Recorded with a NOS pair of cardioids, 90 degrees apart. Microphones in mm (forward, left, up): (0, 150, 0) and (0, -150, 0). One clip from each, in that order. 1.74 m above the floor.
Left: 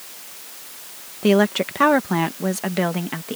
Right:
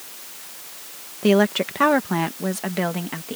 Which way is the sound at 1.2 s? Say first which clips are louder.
Left 1 dB; 5° left.